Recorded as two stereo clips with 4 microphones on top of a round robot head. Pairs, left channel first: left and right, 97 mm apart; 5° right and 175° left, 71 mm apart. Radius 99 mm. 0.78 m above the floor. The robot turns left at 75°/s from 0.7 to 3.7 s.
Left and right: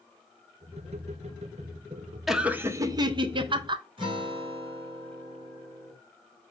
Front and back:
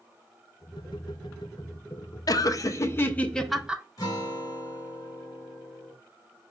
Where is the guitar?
55° right, 1.5 m.